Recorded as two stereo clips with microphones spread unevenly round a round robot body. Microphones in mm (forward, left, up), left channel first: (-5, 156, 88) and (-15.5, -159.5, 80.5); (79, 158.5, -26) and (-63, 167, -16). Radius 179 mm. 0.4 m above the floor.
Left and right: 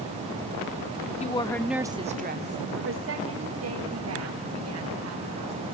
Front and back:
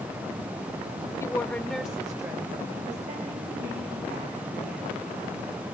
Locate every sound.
1.2 s a woman speaking: 40° left, 1.2 m; by 5.5 s 130° right, 4.5 m